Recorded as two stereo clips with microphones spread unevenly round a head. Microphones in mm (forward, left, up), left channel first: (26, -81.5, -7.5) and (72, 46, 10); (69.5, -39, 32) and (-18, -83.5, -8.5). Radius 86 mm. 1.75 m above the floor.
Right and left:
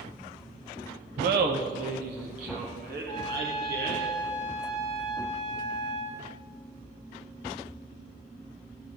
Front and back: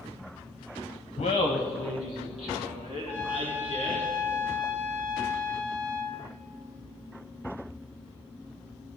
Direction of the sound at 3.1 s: 55° right.